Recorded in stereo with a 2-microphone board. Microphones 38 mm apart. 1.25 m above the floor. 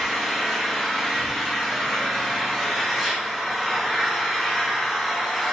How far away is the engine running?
About 0.8 m.